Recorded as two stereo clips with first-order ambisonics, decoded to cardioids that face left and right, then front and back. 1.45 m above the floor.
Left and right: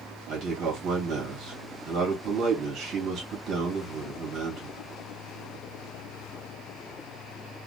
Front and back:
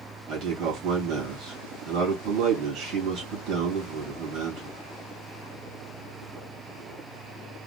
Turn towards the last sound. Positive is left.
turn(degrees=-140)